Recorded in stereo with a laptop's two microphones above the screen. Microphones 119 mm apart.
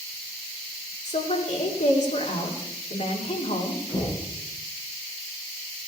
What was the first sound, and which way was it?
A woman speaking, 80° left.